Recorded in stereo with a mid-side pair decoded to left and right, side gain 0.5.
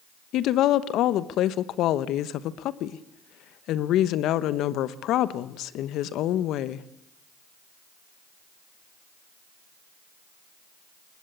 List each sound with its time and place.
0.3 s a woman speaking: 70° left, 1.1 m